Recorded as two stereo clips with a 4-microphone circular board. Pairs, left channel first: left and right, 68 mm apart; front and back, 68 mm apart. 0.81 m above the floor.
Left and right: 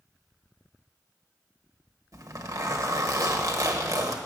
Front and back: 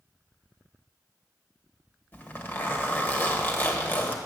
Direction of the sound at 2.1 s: 55° right.